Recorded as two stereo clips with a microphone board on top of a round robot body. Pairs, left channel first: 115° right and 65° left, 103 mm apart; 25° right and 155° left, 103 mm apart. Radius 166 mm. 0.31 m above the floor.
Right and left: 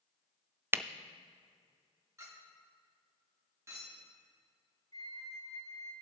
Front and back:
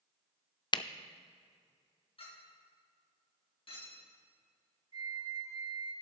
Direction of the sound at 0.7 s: 5° left.